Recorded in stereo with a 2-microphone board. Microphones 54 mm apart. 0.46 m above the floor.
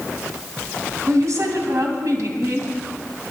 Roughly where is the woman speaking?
Right.